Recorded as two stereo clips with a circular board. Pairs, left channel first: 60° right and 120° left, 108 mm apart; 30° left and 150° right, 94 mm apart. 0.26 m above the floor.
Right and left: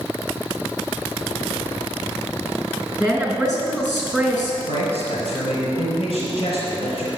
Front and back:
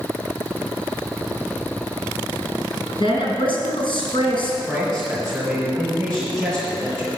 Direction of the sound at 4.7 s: 55° right.